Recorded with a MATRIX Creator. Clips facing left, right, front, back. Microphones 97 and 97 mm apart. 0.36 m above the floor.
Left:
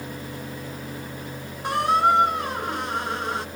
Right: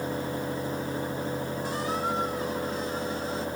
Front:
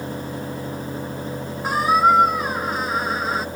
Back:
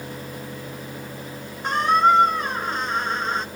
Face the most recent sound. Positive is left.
turn(degrees=85)